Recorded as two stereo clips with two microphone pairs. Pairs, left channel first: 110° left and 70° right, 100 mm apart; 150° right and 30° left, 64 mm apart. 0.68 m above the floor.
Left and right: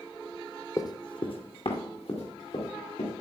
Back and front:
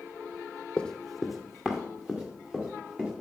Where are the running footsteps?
150° left, 0.9 m; by 3.1 s 105° left, 4 m.